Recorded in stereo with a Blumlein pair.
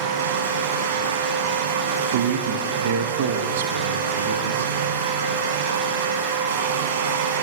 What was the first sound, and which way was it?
A fan, 55° right.